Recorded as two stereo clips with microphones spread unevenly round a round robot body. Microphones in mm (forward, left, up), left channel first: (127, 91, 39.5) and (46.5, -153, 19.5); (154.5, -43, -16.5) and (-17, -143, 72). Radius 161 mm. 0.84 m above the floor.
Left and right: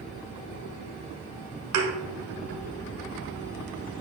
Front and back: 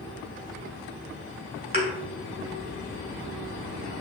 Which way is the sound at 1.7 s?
110° right.